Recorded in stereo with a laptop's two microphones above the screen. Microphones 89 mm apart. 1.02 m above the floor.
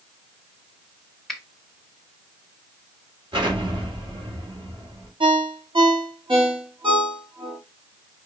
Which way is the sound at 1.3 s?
Centre (ahead or behind).